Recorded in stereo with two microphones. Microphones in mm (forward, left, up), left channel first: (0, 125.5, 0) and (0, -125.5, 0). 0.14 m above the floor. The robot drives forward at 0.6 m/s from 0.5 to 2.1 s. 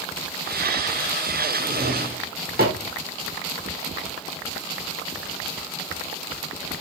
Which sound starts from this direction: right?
A drawer, at 1.6 s.